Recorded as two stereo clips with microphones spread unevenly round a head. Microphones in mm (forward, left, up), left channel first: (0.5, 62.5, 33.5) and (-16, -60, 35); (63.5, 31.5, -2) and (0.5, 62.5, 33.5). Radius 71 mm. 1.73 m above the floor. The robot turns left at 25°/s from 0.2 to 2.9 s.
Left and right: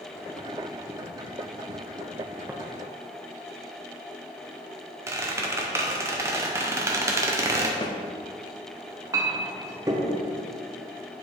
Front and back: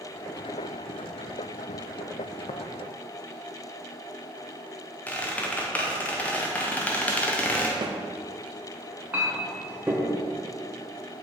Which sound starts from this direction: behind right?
A squeak, at 5.1 s.